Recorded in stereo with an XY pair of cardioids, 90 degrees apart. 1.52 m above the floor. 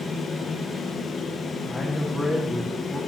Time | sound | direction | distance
0.0 | a fan | 55° left | 1.2 m
1.6 | a man speaking | 10° left | 1.5 m